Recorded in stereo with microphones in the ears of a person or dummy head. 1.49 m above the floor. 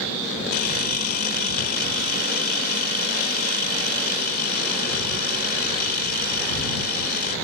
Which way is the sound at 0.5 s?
50° left (ahead or behind).